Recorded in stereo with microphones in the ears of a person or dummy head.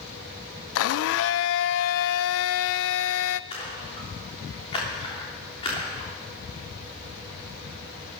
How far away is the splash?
About 3.5 m.